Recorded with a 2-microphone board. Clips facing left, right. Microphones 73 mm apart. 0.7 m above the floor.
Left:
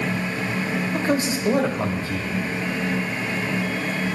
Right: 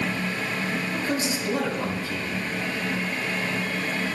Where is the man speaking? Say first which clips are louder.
Left 4 dB; 40° left (ahead or behind), 1.4 m.